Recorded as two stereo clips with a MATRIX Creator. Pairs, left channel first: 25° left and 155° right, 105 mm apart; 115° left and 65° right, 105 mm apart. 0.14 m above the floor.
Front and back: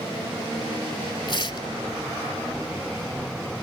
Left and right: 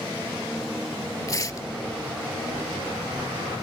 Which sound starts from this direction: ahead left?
Tearing paper, at 1.3 s.